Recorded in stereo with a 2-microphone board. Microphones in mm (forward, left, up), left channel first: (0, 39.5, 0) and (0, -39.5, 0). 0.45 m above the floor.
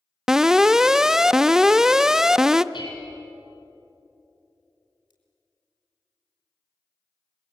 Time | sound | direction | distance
0.3 | an alarm | 5° right (ahead or behind) | 0.5 m
2.7 | dishes clattering | 85° left | 8.5 m
5.1 | scissors | 80° left | 5 m